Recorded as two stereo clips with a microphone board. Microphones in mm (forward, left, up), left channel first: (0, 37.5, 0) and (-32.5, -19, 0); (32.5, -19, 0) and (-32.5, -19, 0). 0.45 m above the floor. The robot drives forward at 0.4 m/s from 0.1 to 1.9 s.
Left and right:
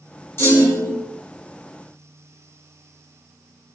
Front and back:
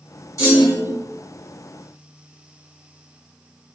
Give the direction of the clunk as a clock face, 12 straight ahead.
11 o'clock.